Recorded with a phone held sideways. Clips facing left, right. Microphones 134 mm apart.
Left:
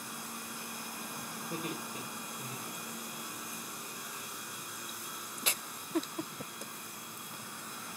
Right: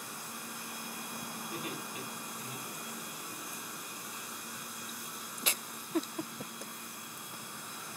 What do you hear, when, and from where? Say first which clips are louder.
1.5 s laughter: left 3 dB; 45° left (ahead or behind), 4.5 m; by 3.4 s 30° left (ahead or behind), 3.5 m